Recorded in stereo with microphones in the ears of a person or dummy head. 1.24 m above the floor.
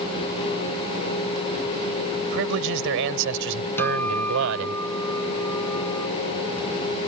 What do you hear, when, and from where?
2.2 s a man speaking: 65° right (ahead or behind); by 4.8 s 70° right (ahead or behind)
3.8 s a guitar: 10° left (ahead or behind)